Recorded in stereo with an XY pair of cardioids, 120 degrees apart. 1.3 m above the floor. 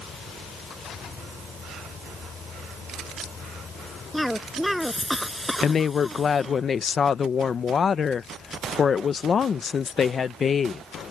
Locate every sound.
0.0 s an insect: 40° left
4.1 s a cough: 5° left
5.6 s a woman speaking: 40° left